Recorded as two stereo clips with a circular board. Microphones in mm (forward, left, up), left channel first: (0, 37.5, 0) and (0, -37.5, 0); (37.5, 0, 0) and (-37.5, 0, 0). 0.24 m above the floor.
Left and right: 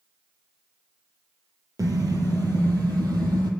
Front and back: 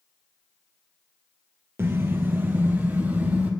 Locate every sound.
1.8 s a car horn: 125° right, 2 m; by 3.5 s 110° right, 3 m